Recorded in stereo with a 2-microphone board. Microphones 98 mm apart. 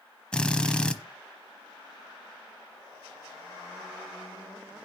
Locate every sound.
0.3 s a drill: 10° left (ahead or behind), 0.9 m